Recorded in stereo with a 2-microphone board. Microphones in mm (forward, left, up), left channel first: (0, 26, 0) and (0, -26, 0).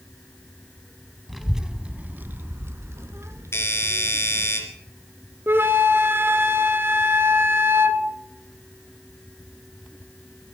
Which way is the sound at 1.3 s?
5° left (ahead or behind).